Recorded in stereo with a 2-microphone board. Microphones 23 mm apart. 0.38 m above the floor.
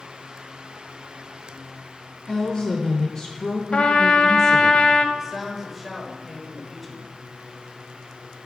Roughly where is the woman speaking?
Left.